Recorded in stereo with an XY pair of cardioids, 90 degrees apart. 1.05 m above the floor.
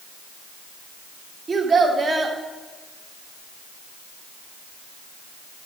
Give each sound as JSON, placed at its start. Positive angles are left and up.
{"t": 1.5, "sound": "a child speaking", "azimuth_deg": -35, "distance_m": 1.8}